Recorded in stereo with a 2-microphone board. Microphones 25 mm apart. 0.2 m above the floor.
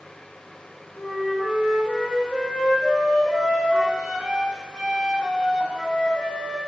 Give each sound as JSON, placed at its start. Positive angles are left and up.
{"t": 1.0, "sound": "a flute", "side_deg": 30, "distance_m": 1.7}